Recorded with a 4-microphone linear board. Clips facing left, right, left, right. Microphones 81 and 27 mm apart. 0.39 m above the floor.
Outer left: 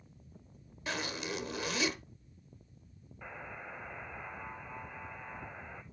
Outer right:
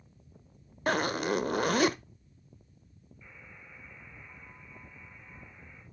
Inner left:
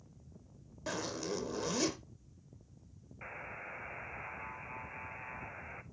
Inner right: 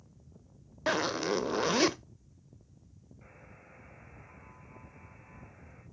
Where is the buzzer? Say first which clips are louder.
Outer left 9 dB, inner left 12 dB; 75° left (ahead or behind), 0.8 m.